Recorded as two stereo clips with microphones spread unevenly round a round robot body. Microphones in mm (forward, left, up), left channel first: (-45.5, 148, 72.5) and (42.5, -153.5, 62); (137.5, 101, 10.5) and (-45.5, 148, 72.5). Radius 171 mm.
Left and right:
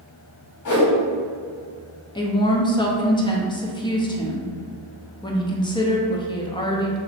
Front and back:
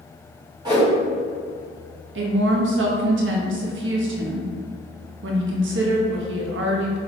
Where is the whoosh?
90° left, 1.7 m.